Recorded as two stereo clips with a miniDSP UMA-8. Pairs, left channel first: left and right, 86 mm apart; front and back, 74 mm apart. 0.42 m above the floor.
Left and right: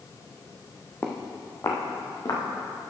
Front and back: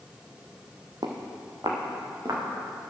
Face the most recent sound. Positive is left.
turn(degrees=135)